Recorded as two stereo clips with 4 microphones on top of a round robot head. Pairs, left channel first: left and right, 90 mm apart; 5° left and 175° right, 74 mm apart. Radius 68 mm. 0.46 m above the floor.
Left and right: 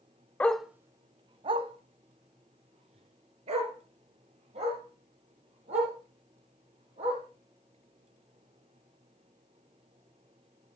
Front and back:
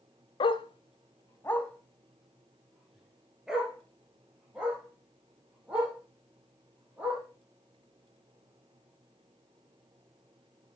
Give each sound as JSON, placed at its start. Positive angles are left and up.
{"t": 0.4, "sound": "a dog barking", "azimuth_deg": 15, "distance_m": 0.6}